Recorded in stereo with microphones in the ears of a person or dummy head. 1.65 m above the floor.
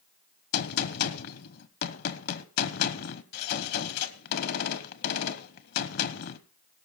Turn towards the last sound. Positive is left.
turn(degrees=60)  # may be behind; listen again after turning